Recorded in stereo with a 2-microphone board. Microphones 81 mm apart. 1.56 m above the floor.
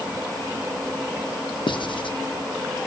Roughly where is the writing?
Left.